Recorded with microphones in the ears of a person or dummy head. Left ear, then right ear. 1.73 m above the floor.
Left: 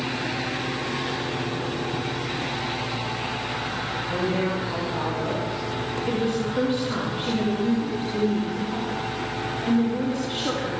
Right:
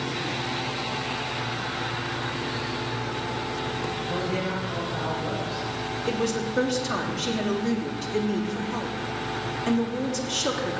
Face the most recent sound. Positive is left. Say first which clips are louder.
# even
turn(degrees=-40)  # may be behind; listen again after turning